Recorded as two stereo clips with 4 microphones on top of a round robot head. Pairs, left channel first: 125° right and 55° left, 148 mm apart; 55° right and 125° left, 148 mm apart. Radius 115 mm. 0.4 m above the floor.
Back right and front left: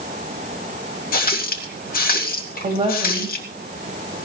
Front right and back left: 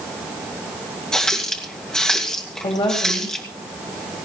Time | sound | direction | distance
1.1 | a running tap | 140° right | 2.5 m
2.6 | a woman speaking | 5° left | 3.5 m